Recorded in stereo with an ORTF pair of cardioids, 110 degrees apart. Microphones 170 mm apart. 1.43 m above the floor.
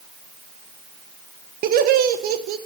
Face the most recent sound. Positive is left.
turn(degrees=-65)